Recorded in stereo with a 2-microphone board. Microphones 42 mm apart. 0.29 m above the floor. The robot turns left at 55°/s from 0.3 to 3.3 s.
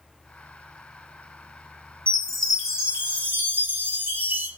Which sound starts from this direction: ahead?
A chime, at 2.1 s.